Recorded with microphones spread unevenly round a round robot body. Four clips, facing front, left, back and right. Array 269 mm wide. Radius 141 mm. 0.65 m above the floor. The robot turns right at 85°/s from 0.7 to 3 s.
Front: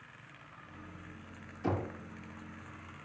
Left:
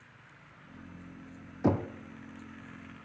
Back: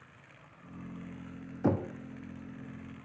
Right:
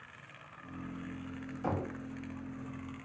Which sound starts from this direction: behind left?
Knocking, at 1.6 s.